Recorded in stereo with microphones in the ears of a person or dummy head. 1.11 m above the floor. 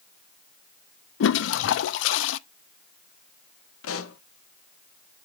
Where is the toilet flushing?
65° left (ahead or behind), 0.6 m.